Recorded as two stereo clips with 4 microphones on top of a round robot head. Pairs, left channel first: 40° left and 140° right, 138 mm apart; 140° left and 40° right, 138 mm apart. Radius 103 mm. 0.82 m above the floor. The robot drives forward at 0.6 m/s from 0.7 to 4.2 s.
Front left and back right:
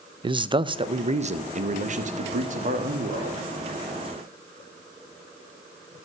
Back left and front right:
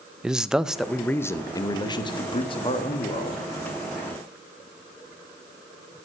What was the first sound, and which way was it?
A man speaking, 120° right.